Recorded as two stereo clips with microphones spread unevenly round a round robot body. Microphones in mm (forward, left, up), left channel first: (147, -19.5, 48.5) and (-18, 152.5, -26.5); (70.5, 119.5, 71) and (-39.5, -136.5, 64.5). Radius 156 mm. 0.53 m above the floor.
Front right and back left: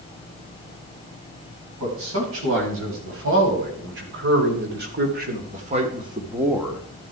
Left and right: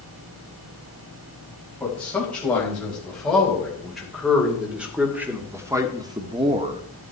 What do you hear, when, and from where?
1.8 s a man speaking: 150° left, 3.5 m; by 6.8 s 155° right, 1.1 m